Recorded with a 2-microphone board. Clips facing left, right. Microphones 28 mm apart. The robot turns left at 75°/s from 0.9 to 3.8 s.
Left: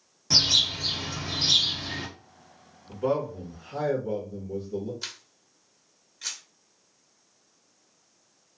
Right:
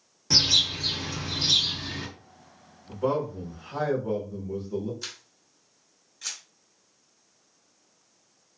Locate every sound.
0.3 s a bird: 175° right, 1.1 m; by 2.1 s 95° left, 1.1 m
2.9 s a man speaking: 15° right, 1.1 m; by 4.9 s 80° right, 1.1 m
5.0 s a camera shutter: 10° left (ahead or behind), 1.0 m